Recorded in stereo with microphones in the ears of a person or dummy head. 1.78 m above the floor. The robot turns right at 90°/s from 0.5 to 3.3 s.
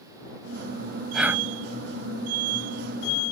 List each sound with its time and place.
1.1 s breathing: 5° left (ahead or behind); by 1.5 s 20° right (ahead or behind)